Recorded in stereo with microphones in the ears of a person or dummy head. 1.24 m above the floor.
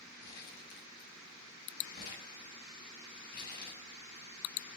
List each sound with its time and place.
0.2 s crumpling: 55° left (ahead or behind), 5 m